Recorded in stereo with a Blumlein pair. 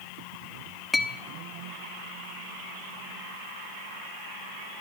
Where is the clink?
10° left, 0.7 m.